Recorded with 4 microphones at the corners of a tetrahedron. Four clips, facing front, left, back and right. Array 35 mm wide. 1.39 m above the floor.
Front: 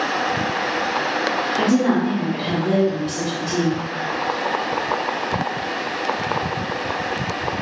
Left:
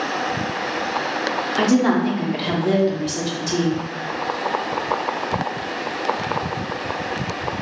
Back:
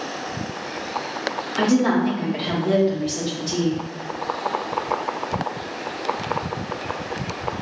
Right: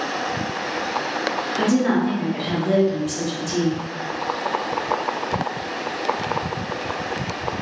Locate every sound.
1.6 s a woman speaking: 105° left, 1.1 m